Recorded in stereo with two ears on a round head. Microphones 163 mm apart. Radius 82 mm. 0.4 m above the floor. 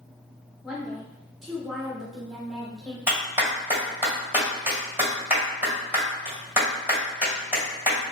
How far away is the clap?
About 1.9 m.